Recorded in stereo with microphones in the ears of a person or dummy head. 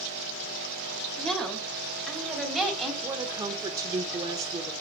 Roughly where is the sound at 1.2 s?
Centre.